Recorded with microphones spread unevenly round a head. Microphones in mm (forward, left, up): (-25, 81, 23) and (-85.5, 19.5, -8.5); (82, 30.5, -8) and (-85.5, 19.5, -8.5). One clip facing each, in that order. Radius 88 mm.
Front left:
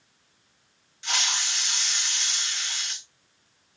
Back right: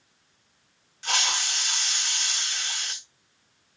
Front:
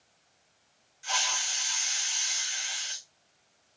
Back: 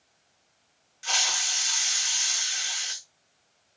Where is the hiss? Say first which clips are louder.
Back right 2 dB, back 1 dB; straight behind, 0.7 m.